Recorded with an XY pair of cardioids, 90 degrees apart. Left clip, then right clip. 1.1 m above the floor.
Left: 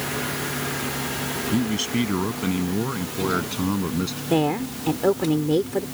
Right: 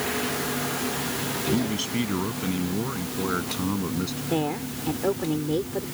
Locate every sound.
1.5 s a man speaking: 30° left; by 4.2 s 25° left
4.3 s a woman speaking: 40° left